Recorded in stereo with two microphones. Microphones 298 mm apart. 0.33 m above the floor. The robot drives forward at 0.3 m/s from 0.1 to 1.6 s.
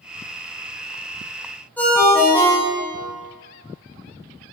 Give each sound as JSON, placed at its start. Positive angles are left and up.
{"t": 1.8, "sound": "a ringtone", "side_deg": 5, "distance_m": 0.7}